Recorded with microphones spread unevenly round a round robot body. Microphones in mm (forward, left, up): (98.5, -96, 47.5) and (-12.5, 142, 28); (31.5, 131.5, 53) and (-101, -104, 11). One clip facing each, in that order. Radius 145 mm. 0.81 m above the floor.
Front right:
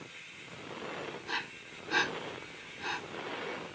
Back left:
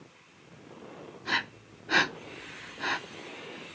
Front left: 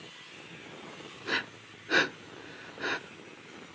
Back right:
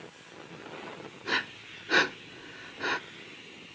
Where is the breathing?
150° left, 0.6 m.